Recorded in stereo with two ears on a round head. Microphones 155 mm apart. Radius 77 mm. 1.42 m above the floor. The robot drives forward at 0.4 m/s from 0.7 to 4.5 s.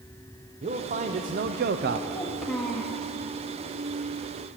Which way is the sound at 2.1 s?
Centre (ahead or behind).